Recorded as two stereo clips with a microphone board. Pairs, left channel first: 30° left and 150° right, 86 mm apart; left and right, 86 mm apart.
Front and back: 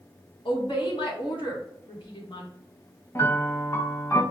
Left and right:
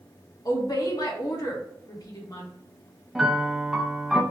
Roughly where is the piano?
Ahead.